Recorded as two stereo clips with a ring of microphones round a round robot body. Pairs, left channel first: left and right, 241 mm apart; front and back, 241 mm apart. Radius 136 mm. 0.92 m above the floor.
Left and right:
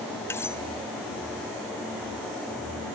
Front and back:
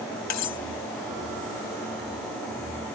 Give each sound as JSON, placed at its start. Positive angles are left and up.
{"t": 0.3, "sound": "cutlery clinking", "azimuth_deg": 10}